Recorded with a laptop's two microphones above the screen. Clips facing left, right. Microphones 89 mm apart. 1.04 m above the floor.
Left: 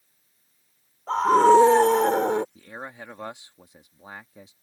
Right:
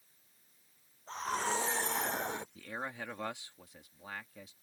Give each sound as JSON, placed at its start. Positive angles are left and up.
{"t": 1.1, "sound": "a scream", "side_deg": 80}
{"t": 2.5, "sound": "a man speaking", "side_deg": 20}